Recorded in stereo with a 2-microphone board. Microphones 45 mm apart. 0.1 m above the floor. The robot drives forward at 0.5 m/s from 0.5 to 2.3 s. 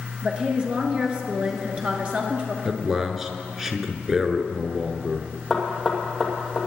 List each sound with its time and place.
0.2 s a woman speaking: 25° right (ahead or behind), 1.7 m
2.6 s a man speaking: 10° right (ahead or behind), 1.1 m
5.5 s knocking: 10° right (ahead or behind), 2.5 m